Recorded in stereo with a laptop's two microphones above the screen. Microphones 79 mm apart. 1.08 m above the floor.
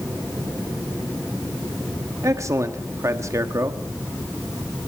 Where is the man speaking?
40° right (ahead or behind), 1.5 m.